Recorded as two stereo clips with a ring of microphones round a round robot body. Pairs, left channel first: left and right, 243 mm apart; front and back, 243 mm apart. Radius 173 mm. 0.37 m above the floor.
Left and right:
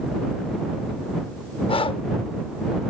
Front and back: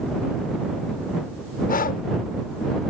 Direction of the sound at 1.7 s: 30° left.